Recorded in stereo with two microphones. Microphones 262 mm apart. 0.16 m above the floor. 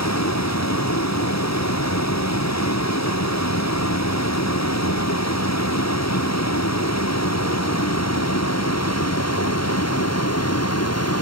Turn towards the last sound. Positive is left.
turn(degrees=70)  # may be behind; listen again after turning